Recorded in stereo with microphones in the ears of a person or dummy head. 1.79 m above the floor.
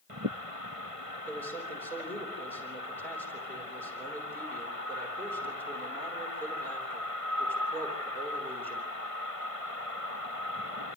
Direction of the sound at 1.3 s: 10° left (ahead or behind).